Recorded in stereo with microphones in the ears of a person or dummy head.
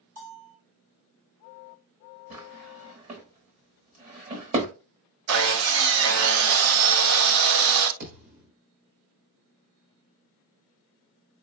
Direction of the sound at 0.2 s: 50° right (ahead or behind).